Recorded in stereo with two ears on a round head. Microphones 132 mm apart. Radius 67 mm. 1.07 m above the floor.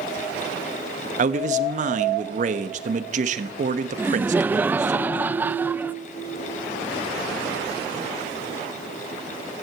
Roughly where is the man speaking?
Right.